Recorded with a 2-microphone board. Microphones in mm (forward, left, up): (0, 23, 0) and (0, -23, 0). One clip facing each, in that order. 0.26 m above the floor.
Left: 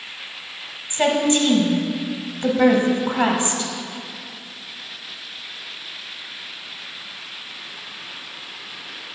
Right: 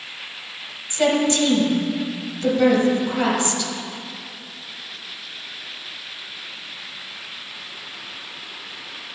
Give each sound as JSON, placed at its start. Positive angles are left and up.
{"t": 0.9, "sound": "a woman speaking", "side_deg": 30, "distance_m": 1.2}